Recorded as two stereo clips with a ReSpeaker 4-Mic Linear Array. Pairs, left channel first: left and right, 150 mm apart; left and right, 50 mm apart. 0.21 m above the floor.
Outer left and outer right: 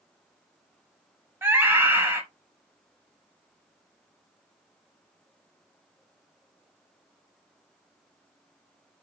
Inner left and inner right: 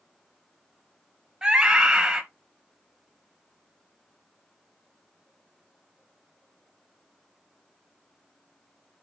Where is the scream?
15° right (ahead or behind), 1.1 m.